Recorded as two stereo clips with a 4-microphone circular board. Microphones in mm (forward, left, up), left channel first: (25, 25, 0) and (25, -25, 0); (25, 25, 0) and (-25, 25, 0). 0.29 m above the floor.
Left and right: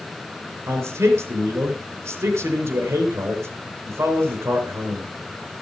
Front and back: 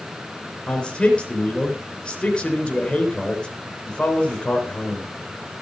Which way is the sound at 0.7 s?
70° right.